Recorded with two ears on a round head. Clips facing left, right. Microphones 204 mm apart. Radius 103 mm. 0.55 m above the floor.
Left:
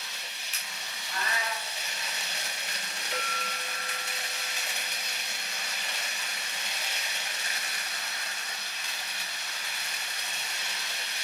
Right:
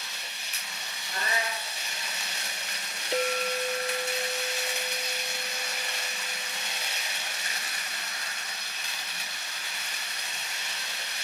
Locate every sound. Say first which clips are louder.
1.1 s a cat meowing: right 2 dB; 30° right (ahead or behind), 3 m
3.1 s a clink: right 11 dB; 25° right (ahead or behind), 0.6 m